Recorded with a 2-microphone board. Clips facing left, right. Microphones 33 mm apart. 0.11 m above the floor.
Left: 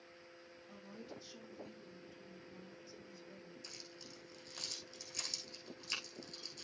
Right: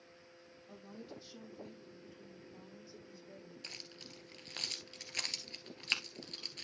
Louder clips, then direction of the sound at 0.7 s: Right 2 dB; 20° right (ahead or behind).